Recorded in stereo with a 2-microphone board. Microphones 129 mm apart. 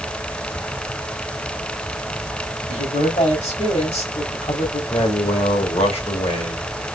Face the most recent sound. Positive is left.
turn(degrees=55)  # may be behind; listen again after turning